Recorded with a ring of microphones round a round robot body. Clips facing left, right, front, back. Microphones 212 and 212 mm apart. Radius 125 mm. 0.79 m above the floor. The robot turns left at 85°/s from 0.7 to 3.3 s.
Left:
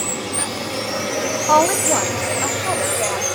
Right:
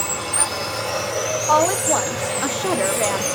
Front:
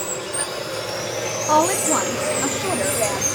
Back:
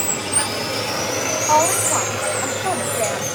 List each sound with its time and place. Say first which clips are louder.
0.0 s running water: left 3 dB, back 2 dB; 165° right, 4 m; by 3.4 s 25° right, 4 m
1.5 s a woman speaking: left 2 dB, front 3 dB; 45° left, 0.9 m; by 3.2 s 105° right, 0.9 m